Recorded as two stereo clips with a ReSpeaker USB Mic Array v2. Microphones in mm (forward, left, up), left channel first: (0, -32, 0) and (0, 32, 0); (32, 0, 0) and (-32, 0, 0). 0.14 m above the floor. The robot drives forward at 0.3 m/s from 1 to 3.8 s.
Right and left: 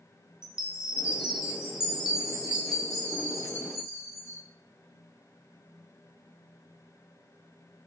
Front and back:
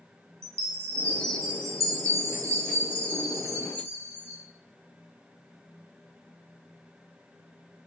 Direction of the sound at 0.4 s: 165° left.